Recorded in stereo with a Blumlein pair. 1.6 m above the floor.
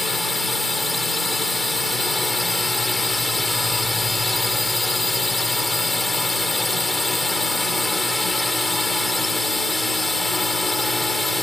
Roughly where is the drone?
Ahead.